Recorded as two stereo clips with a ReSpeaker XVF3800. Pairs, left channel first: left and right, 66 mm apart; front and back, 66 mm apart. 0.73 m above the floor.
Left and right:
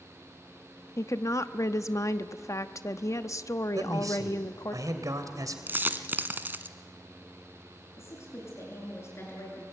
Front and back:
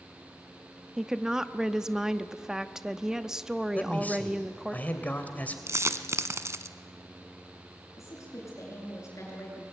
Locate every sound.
1.0 s a woman speaking: 100° left, 0.8 m
3.8 s a man speaking: 65° right, 3 m
5.7 s a dropped coin: 145° right, 1.0 m
8.0 s a woman speaking: 40° left, 9.5 m